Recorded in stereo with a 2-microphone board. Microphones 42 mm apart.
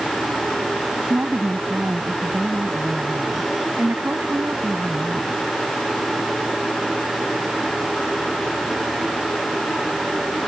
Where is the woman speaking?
50° right (ahead or behind).